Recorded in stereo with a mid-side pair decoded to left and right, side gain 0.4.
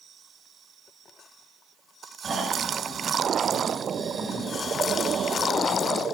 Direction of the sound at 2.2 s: 50° right.